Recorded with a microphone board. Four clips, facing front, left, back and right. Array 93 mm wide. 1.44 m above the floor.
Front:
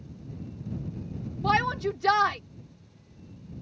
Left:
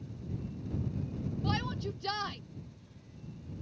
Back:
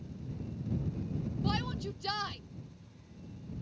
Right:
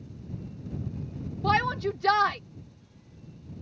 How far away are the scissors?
I don't hear scissors.